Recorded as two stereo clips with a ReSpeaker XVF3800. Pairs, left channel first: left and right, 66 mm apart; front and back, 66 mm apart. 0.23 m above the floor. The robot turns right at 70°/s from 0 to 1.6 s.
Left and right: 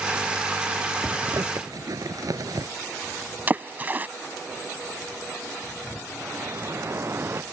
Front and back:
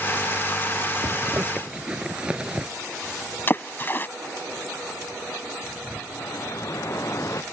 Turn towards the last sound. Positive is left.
turn(degrees=-40)